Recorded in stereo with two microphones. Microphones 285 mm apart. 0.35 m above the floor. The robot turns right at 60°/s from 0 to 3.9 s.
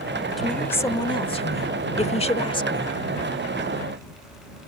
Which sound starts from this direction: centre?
A woman speaking, at 0.4 s.